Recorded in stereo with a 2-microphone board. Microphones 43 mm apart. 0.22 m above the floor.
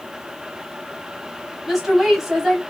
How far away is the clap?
No clap in this recording.